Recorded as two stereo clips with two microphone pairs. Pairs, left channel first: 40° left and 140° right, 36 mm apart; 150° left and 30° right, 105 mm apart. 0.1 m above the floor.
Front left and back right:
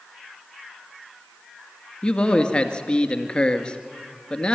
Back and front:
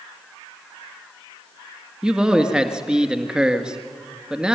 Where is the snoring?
I don't hear snoring.